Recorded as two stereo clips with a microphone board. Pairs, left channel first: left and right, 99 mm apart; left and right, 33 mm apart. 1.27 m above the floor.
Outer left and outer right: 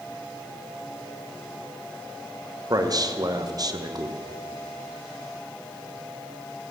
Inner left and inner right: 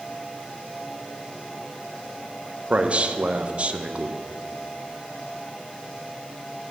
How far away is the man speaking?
About 0.8 m.